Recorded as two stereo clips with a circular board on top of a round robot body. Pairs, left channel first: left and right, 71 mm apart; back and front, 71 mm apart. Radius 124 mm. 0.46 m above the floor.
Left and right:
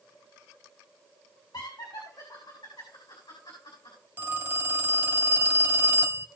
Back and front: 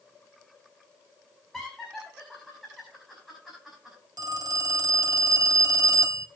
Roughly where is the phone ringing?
Ahead right.